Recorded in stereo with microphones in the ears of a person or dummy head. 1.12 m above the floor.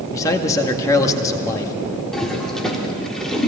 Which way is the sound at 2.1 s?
Centre (ahead or behind).